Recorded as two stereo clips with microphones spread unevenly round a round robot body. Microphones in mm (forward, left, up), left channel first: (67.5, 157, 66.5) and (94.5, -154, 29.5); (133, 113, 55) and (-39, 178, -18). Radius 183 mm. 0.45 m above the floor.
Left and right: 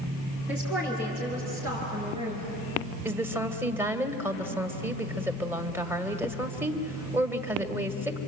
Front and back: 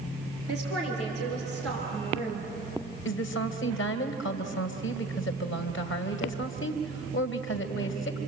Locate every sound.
0.5 s a woman speaking: 170° right, 6.5 m; by 2.5 s 160° right, 6 m
3.0 s a woman speaking: 10° right, 2 m